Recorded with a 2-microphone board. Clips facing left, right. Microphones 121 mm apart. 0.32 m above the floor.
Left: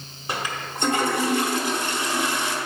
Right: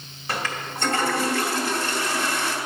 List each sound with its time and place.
0.3 s a toilet flushing: 20° left (ahead or behind), 1.1 m